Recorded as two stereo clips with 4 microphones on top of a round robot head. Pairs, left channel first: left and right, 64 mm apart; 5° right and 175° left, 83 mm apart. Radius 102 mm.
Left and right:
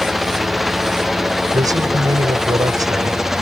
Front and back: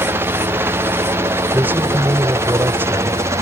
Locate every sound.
0.0 s a helicopter: 175° right; by 3.4 s 170° right
1.5 s a man speaking: 115° right